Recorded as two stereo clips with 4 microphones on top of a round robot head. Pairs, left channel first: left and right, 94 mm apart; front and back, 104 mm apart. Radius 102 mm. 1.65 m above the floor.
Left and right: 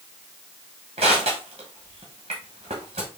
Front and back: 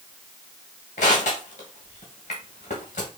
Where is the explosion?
No explosion in this recording.